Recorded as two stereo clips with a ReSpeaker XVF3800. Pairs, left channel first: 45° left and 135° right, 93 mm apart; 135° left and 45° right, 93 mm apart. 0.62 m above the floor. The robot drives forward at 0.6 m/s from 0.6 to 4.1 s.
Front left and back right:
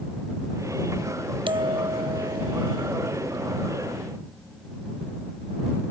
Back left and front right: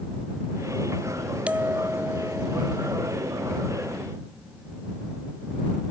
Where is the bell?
120° right; by 2.9 s 125° right.